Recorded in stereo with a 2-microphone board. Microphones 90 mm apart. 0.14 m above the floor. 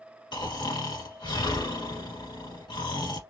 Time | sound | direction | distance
0.3 | snoring | 55° left (ahead or behind) | 1.8 m